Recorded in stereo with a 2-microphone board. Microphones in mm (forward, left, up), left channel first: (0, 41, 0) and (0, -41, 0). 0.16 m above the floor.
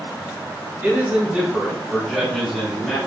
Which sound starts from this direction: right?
A man speaking, at 0.8 s.